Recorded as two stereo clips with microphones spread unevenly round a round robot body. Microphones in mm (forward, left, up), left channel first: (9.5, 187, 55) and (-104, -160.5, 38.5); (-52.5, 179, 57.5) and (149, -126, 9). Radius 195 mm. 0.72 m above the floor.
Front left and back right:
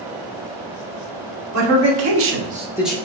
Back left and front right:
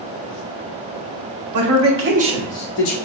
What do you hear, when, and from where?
1.5 s a man speaking: 70° right, 1.0 m; by 3.0 s 160° left, 0.7 m